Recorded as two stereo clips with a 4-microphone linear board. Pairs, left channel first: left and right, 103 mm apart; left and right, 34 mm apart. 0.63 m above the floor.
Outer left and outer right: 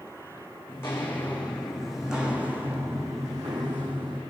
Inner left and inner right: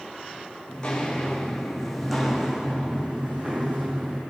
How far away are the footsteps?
About 3 m.